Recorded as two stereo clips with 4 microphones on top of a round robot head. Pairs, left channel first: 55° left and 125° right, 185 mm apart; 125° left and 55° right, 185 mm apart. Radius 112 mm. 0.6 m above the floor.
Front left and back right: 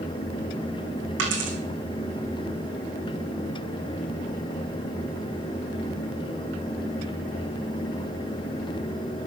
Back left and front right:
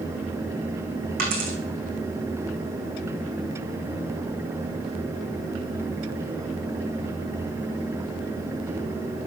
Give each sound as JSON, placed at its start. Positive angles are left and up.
{"t": 1.2, "sound": "a dropped coin", "azimuth_deg": -100, "distance_m": 2.5}